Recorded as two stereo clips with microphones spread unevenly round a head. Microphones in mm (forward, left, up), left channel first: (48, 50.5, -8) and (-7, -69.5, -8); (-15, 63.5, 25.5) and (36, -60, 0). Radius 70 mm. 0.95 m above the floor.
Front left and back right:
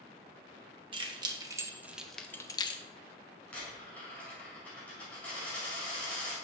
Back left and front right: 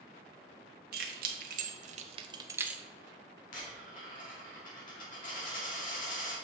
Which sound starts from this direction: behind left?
A dropped coin, at 3.5 s.